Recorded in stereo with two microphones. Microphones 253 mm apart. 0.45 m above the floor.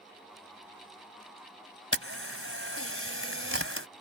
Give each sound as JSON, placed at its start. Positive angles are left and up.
{"t": 1.9, "sound": "a camera shutter", "side_deg": -55}